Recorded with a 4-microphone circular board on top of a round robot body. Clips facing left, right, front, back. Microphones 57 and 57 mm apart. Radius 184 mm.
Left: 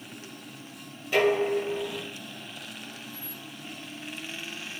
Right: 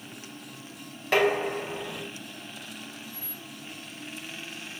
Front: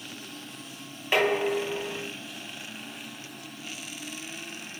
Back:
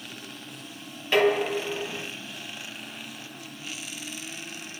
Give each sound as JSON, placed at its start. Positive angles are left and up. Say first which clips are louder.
{"t": 1.1, "sound": "dishes clattering", "louder": "left 1 dB, back 2 dB", "azimuth_deg": -75, "distance_m": 5.5}